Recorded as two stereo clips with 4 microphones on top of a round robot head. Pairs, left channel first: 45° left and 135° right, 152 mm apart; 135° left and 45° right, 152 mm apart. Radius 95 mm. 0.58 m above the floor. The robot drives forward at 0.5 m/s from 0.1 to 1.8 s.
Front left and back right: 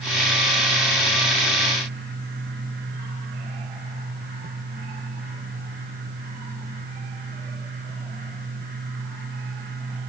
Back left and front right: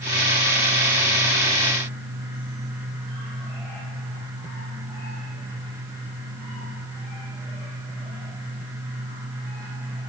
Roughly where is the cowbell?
No cowbell in this recording.